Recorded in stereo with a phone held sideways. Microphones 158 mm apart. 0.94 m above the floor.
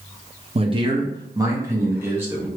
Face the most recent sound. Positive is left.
turn(degrees=-15)  # may be behind; listen again after turning